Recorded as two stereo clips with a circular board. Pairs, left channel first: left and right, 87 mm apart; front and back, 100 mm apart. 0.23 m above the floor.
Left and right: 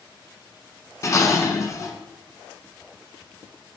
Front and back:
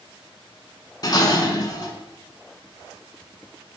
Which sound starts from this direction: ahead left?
Dishes clattering, at 1.0 s.